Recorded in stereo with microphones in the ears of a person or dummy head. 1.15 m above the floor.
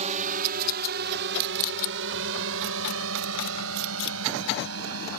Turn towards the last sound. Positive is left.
turn(degrees=-70)  # may be behind; listen again after turning